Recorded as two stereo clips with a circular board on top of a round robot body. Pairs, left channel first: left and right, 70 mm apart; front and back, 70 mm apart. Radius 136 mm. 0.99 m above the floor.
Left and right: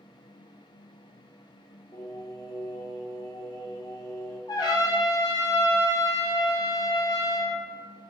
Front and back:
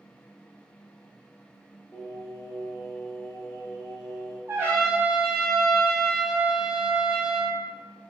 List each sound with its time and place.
1.9 s singing: 60° left, 0.5 m
4.5 s a trumpet: 120° left, 0.9 m